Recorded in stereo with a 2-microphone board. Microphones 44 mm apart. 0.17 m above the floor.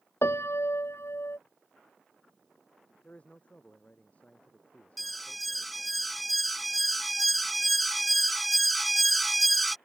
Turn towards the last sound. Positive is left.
turn(degrees=0)  # may be behind; listen again after turning